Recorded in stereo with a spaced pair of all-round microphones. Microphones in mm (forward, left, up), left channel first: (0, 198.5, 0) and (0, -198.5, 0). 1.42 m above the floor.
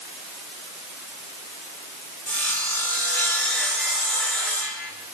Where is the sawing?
5° left (ahead or behind), 4 m.